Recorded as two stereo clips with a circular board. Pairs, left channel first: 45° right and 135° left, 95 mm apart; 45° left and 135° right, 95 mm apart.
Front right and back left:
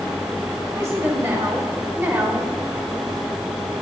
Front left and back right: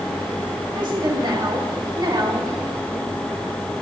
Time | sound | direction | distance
0.8 | a woman speaking | 165° right | 3 m